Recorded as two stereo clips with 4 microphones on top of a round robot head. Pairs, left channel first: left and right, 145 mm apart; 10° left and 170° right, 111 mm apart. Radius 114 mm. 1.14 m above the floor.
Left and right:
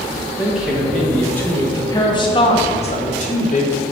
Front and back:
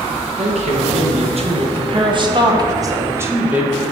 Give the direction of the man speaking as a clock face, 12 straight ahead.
6 o'clock.